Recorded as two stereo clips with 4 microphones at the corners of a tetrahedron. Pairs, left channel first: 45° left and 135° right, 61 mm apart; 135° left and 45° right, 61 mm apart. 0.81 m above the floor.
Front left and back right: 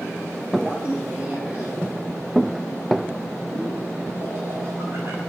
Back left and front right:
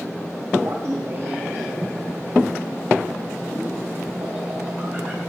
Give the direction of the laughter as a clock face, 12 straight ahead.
2 o'clock.